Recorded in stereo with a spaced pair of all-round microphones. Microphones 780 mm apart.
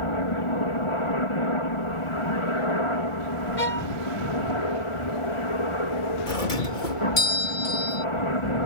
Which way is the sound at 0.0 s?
40° left (ahead or behind).